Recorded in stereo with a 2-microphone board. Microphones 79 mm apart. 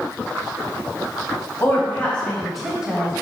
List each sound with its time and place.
1.6 s a woman speaking: 35° left (ahead or behind), 1.2 m; by 3.1 s 20° right (ahead or behind), 1.1 m